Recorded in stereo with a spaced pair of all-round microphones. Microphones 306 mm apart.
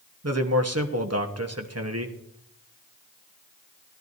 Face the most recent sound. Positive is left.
turn(degrees=-55)  # may be behind; listen again after turning